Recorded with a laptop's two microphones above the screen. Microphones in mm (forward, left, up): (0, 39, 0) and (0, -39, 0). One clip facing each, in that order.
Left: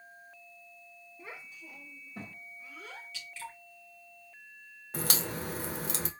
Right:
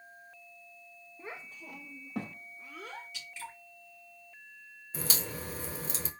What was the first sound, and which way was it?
A child speaking, 15° right (ahead or behind).